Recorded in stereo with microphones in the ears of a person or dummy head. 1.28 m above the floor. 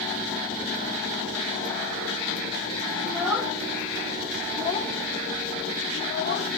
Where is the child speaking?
15° right (ahead or behind), 1.4 m; by 6.5 s 60° left (ahead or behind), 0.9 m.